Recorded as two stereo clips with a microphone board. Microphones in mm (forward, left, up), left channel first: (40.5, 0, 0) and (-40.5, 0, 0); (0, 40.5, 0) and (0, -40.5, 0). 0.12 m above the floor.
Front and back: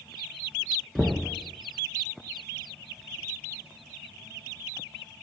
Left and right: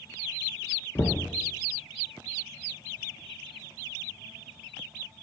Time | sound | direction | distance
0.9 | knocking | 80° left | 0.9 m